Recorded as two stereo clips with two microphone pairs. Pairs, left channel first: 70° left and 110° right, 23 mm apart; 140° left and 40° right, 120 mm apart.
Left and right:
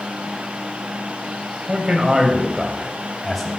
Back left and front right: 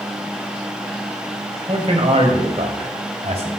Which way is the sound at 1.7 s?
75° right.